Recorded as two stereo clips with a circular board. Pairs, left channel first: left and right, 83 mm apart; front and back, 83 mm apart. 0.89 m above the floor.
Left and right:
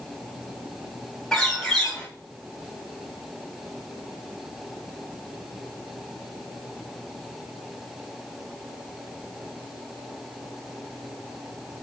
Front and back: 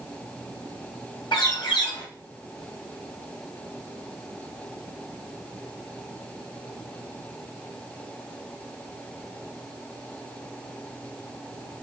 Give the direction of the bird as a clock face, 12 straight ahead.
12 o'clock.